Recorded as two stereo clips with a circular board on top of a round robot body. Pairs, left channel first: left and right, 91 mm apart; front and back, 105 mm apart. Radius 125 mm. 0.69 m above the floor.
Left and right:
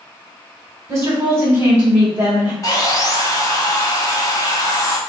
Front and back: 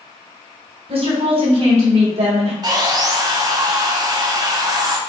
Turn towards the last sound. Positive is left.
turn(degrees=135)